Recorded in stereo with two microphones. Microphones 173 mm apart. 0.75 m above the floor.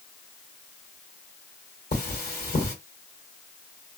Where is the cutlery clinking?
70° left (ahead or behind), 1.5 m.